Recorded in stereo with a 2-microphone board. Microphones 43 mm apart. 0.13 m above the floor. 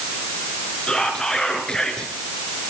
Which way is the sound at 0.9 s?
15° left (ahead or behind).